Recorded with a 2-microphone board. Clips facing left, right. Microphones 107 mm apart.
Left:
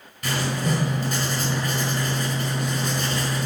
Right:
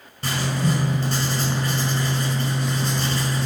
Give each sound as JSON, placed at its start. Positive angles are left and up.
{"t": 0.2, "sound": "writing", "side_deg": -30, "distance_m": 5.5}